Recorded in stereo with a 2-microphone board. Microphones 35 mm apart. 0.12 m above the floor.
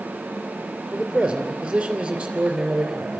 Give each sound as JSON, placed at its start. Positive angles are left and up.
{"t": 0.9, "sound": "a man speaking", "side_deg": -25, "distance_m": 2.5}